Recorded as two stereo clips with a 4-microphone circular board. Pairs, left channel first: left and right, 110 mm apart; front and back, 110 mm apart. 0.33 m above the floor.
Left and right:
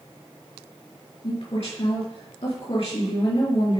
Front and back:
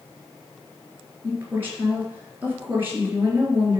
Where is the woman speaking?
110° left, 4.5 m.